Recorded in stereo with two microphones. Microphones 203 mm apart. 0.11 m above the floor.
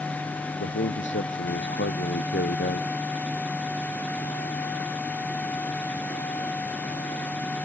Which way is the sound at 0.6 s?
70° left (ahead or behind).